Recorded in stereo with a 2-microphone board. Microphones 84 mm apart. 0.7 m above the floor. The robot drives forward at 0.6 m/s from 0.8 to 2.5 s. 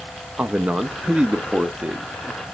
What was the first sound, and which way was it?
A man speaking, 15° right (ahead or behind).